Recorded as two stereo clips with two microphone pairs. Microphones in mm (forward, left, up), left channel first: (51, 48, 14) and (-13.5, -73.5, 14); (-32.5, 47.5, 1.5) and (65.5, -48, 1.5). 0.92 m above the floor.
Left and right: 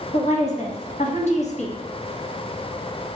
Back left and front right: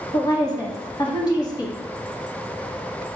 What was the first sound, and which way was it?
A woman speaking, 80° left.